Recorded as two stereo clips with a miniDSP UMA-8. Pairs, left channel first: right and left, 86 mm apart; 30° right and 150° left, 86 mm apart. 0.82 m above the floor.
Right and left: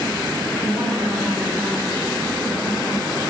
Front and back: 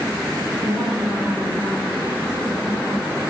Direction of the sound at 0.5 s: 115° left.